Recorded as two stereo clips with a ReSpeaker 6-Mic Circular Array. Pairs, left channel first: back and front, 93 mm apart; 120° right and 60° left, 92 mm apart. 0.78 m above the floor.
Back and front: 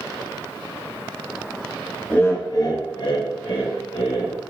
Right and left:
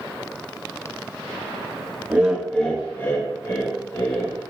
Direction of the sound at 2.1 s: 115° left.